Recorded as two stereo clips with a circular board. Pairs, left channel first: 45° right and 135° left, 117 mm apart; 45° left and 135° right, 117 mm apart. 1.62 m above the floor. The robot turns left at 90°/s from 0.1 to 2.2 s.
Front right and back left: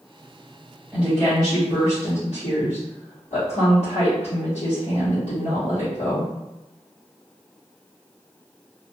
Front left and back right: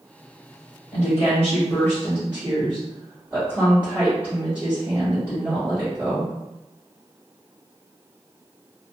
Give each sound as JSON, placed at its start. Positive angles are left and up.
{"t": 0.9, "sound": "a woman speaking", "azimuth_deg": 55, "distance_m": 1.3}